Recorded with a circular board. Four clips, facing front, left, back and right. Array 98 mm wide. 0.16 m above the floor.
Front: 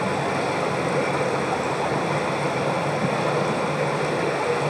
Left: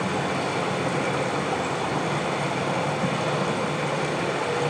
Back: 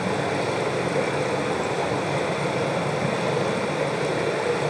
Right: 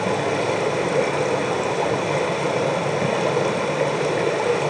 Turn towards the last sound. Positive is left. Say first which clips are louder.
# right 4 dB, front 1 dB
turn(degrees=-95)